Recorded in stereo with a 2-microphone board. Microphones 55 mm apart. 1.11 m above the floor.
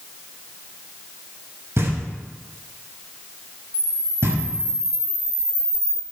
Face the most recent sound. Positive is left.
turn(degrees=-20)  # may be behind; listen again after turning